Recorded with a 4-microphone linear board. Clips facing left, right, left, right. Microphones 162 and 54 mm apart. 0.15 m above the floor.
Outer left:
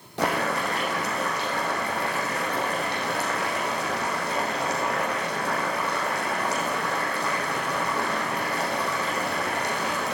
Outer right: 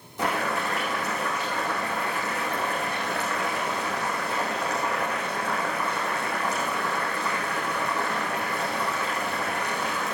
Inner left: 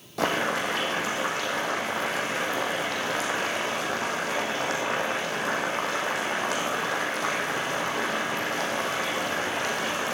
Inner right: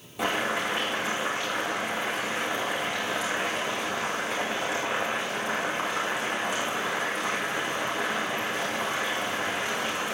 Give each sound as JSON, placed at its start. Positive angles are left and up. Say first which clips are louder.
{"t": 0.2, "sound": "boiling", "louder": "outer left 2 dB, inner left 2 dB", "side_deg": 75, "distance_m": 5.0}